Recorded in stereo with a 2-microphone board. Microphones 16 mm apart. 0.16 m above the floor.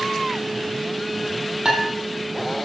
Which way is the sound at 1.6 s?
60° right (ahead or behind).